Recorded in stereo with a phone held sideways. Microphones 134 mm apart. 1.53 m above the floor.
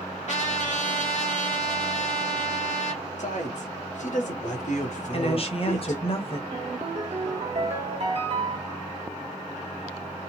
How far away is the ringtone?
About 1.3 m.